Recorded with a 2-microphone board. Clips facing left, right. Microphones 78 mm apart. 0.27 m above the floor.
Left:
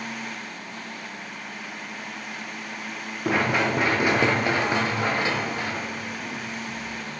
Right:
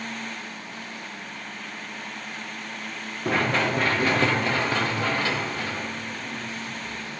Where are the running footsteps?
5° left (ahead or behind), 1.9 m; by 7.2 s 20° left (ahead or behind), 4.5 m.